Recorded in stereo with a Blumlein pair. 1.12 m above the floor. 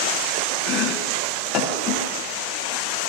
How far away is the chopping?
About 1.5 m.